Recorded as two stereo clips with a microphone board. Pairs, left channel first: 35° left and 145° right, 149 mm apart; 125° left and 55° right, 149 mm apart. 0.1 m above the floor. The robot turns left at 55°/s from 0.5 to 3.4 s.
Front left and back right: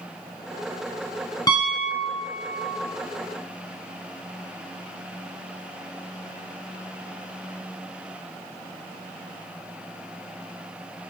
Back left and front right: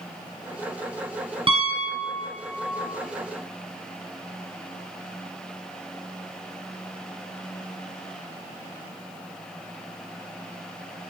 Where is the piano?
20° right, 2 m; by 2.8 s 95° right, 2 m.